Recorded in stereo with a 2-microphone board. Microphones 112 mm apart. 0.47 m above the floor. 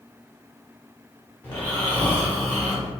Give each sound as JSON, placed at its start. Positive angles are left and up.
{"t": 1.4, "sound": "snoring", "side_deg": 15, "distance_m": 1.0}